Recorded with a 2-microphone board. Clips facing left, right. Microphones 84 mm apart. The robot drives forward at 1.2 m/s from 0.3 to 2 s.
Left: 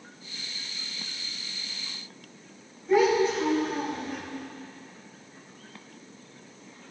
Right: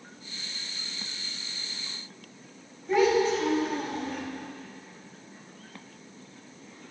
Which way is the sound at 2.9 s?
Centre (ahead or behind).